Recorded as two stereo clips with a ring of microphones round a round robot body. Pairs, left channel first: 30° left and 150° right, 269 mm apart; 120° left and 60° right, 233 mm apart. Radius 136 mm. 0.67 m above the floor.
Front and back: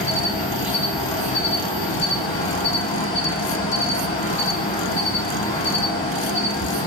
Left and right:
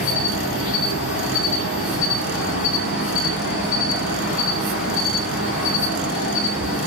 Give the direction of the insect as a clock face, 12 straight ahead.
9 o'clock.